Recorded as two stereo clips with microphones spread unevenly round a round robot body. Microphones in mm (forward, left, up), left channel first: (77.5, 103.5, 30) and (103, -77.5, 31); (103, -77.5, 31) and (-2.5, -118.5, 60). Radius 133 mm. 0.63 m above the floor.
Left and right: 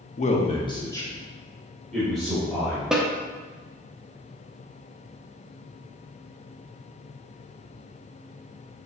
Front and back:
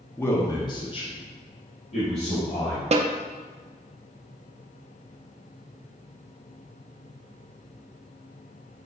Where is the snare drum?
165° right, 0.6 m.